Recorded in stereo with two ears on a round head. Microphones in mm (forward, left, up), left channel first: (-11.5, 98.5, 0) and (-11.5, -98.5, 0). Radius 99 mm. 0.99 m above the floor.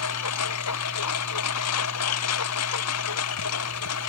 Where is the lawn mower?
85° left.